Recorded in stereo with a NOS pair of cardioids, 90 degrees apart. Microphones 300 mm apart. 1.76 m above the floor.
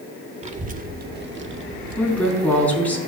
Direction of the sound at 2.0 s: 5° left.